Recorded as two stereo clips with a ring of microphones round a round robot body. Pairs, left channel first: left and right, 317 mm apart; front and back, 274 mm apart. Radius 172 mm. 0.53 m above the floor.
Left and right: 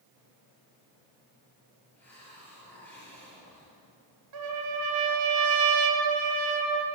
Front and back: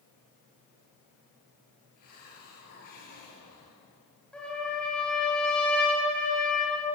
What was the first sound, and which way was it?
A hiss, 5° left.